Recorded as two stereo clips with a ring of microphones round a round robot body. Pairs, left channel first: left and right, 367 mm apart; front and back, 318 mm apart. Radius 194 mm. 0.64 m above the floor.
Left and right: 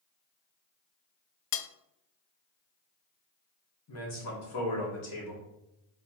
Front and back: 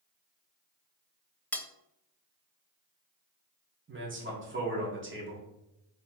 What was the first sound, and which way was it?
Cutlery clinking, 85° left.